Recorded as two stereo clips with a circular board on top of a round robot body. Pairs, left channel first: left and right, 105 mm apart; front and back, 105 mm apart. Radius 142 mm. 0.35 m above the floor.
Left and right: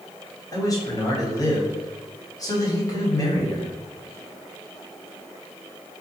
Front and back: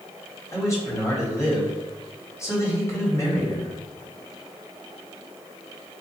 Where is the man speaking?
50° left, 2.0 m.